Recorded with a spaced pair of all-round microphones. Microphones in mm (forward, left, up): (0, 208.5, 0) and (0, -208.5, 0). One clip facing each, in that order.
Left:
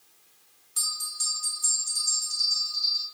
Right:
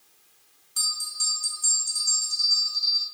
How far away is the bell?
About 1.9 m.